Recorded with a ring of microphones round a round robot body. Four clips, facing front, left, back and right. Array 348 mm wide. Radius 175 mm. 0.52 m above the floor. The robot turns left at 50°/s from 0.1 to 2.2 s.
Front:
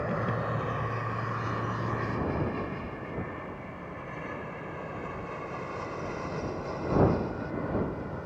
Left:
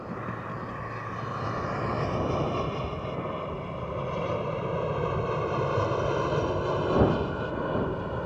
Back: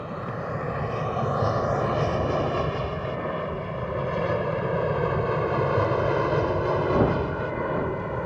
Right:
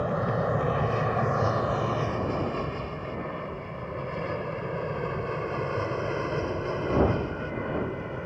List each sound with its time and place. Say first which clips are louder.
0.0 s an aircraft: right 9 dB, front 1 dB; 80° right; by 8.3 s 165° left